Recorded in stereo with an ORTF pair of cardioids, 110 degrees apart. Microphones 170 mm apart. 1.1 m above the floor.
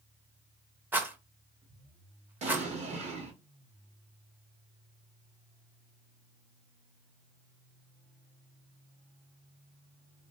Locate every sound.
0.9 s a rattle: 10° right, 0.6 m
2.4 s an explosion: 40° right, 1.0 m